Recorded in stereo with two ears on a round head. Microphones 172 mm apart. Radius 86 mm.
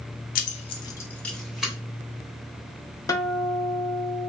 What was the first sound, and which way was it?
Keys jangling, 45° left (ahead or behind).